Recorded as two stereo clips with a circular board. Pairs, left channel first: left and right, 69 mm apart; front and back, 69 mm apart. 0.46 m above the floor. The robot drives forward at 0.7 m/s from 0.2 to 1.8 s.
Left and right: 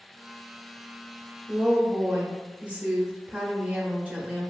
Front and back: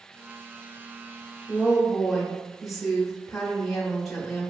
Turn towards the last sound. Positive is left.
turn(degrees=-95)